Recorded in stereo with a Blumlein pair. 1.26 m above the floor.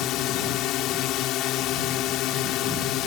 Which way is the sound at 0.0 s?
35° left.